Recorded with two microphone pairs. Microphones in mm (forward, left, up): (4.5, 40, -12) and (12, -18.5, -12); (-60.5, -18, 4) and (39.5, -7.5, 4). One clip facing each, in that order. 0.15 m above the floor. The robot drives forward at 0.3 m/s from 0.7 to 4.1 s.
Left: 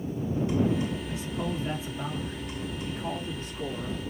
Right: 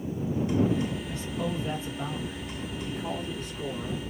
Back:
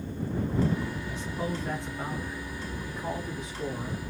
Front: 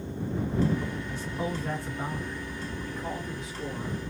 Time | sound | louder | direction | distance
1.1 | a man speaking | even, even | 55° left | 1.3 m